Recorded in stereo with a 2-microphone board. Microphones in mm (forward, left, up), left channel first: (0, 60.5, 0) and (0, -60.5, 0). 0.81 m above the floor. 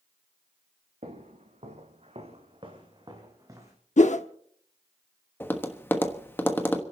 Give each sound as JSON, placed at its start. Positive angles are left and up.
{"t": 1.0, "sound": "footsteps", "side_deg": -75, "distance_m": 2.5}
{"t": 4.0, "sound": "a whoosh", "side_deg": 80, "distance_m": 0.7}
{"t": 5.4, "sound": "tapping", "side_deg": 15, "distance_m": 1.1}